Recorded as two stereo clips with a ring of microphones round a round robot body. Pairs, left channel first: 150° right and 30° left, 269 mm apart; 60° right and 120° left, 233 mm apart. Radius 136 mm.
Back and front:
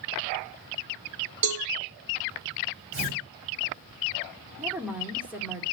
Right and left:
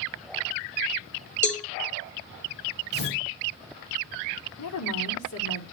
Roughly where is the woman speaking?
Ahead right.